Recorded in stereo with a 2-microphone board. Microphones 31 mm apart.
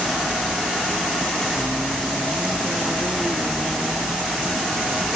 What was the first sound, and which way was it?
Only background noise.